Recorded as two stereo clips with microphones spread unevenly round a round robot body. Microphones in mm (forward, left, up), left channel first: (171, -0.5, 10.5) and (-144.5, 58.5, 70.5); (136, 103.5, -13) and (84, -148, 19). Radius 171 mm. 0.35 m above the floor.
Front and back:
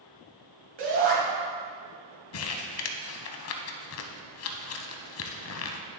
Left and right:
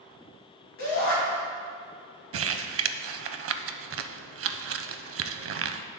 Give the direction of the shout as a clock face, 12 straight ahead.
8 o'clock.